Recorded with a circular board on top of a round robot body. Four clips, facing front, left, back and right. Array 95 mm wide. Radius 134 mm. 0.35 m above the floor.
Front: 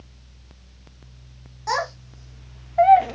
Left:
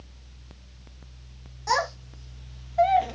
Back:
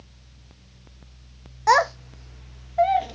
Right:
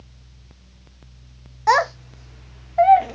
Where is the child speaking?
125° right, 0.8 m; by 3.1 s 20° right, 0.5 m.